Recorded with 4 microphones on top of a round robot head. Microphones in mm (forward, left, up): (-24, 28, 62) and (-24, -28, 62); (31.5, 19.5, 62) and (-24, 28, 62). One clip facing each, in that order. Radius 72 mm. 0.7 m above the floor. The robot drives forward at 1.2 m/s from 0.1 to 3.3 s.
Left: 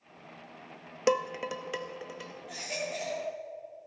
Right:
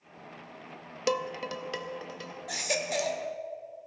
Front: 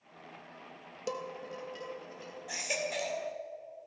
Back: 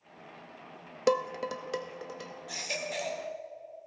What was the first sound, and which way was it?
Dishes clattering, 155° left.